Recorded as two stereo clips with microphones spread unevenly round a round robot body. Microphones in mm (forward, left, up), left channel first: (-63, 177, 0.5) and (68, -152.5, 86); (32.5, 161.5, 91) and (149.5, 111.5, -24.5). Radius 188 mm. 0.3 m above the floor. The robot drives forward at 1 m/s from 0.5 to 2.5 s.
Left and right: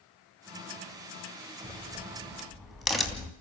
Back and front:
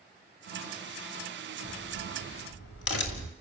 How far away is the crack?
About 1.9 m.